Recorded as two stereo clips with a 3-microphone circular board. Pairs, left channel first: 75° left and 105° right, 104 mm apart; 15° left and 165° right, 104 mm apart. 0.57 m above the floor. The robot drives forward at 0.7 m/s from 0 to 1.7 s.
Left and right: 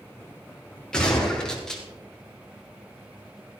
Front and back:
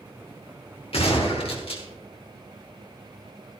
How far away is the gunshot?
About 3.5 m.